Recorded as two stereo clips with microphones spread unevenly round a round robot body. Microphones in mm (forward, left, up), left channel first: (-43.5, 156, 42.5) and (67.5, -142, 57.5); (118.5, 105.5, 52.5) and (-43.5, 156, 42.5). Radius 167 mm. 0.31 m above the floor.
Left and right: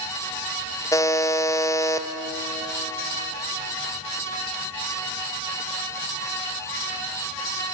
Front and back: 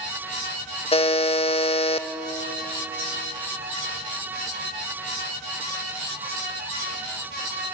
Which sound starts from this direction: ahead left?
A buzzer, at 0.9 s.